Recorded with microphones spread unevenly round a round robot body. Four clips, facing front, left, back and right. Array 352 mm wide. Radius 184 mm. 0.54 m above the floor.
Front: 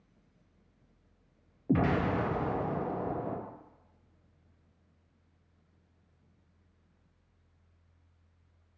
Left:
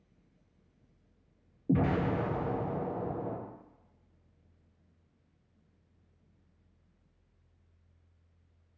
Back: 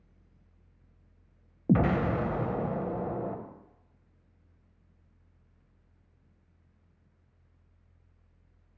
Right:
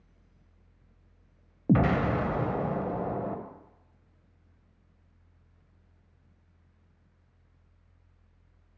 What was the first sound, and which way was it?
An explosion, 95° right.